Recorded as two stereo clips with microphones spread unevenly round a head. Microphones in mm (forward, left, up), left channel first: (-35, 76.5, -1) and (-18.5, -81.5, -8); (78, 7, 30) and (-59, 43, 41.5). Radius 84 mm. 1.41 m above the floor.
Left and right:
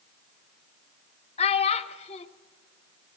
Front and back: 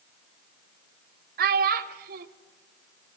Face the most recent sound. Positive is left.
turn(degrees=145)